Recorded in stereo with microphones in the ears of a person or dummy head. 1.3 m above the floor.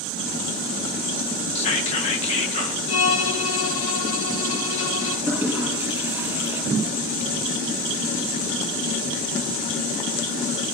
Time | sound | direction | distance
1.6 | whispering | 30° left (ahead or behind) | 1.5 m
2.9 | a violin | 70° left (ahead or behind) | 2 m
5.3 | a toilet flushing | 15° right (ahead or behind) | 5 m